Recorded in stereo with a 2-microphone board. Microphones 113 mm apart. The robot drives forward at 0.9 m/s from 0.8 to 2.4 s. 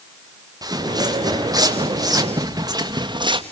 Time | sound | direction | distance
0.6 | footsteps | 35° right (ahead or behind) | 2.5 m